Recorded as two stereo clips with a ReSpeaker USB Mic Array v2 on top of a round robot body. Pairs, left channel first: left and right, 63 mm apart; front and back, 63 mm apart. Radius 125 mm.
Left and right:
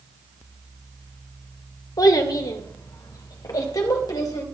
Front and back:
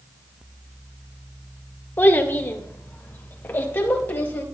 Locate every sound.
2.0 s a child speaking: 60° left, 1.4 m